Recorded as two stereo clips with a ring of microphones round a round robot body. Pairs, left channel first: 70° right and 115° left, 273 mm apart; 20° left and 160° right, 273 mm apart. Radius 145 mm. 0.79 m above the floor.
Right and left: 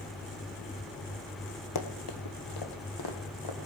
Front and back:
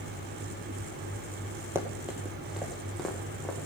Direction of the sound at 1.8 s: 75° right.